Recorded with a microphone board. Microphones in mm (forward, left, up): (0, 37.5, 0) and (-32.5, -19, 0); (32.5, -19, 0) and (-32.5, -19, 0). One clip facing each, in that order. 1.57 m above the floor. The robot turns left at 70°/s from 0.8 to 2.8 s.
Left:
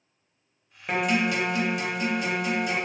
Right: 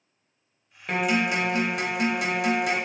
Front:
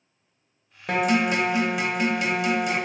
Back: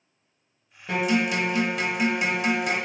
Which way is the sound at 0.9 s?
20° right.